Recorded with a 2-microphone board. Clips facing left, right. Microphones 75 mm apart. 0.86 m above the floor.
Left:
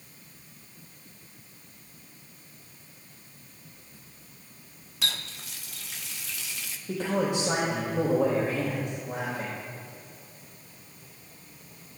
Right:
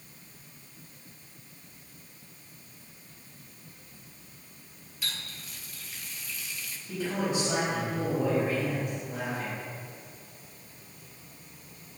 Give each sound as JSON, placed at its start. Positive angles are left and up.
{"t": 5.0, "sound": "a running tap", "side_deg": 85, "distance_m": 0.9}
{"t": 6.9, "sound": "a man speaking", "side_deg": 80, "distance_m": 3.5}